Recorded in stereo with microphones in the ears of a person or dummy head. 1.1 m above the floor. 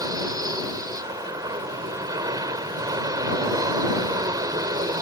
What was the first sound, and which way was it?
An aircraft, 25° right (ahead or behind).